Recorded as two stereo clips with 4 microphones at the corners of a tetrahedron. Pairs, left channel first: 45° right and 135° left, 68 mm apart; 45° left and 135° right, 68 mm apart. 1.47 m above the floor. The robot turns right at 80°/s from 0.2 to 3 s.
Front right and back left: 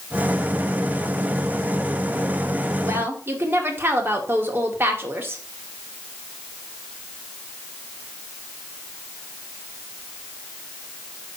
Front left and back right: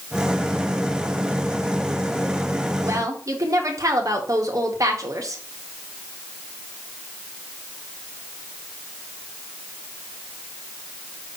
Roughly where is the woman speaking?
Behind.